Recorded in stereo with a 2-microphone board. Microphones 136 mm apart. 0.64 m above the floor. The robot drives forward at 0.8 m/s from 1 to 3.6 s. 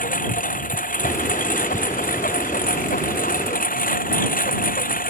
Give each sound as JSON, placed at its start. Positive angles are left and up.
{"t": 0.0, "sound": "a lawn mower", "side_deg": 75}